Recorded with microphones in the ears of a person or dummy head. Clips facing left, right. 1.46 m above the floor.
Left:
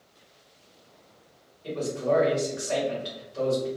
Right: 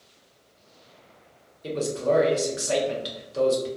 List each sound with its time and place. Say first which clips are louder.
1.6 s a man speaking: right 2 dB; 55° right (ahead or behind), 1.0 m